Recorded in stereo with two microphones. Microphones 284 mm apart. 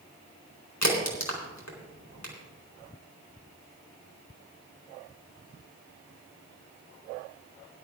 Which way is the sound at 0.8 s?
80° left.